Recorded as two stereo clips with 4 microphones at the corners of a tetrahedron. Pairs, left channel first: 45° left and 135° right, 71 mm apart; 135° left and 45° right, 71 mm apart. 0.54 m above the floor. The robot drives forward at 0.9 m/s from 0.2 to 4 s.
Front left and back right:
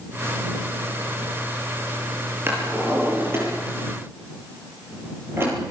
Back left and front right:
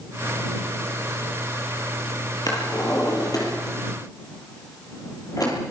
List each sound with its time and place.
2.5 s a drawer: 165° left, 7 m; by 5.5 s 170° left, 8.5 m